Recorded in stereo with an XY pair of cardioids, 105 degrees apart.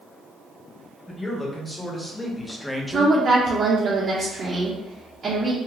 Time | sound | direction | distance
1.1 | a man speaking | 15° left | 1.5 m
2.9 | a woman speaking | 45° right | 0.8 m